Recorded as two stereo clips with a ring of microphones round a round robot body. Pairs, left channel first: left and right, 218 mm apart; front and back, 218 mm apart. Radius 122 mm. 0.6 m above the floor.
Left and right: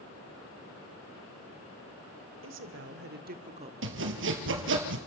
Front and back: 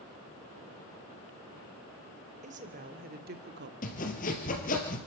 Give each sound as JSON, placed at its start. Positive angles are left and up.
{"t": 2.4, "sound": "a woman speaking", "azimuth_deg": -120, "distance_m": 2.0}
{"t": 3.8, "sound": "sawing", "azimuth_deg": -60, "distance_m": 3.0}